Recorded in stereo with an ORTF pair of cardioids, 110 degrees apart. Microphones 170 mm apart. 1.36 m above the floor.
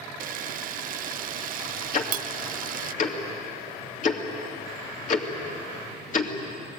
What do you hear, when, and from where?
0.2 s a camera shutter: 55° right, 0.6 m
1.9 s ticking: 45° left, 2.5 m